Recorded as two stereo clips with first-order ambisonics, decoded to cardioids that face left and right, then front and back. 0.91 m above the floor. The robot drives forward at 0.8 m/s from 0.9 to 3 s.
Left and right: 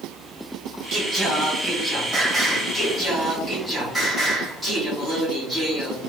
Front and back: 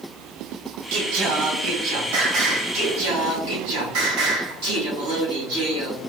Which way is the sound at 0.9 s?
155° right.